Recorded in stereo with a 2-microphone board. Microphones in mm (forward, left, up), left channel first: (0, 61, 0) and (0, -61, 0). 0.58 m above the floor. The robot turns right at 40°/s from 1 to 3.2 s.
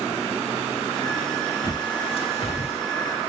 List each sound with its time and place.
1.6 s a bird: 30° left (ahead or behind), 1.2 m; by 2.8 s 60° left (ahead or behind), 1.2 m